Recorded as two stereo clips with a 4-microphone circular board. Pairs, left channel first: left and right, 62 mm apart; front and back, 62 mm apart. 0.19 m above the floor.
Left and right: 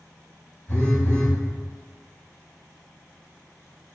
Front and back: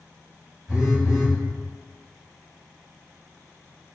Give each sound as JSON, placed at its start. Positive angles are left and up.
{"t": 0.7, "sound": "a phone buzzing", "azimuth_deg": 105, "distance_m": 1.2}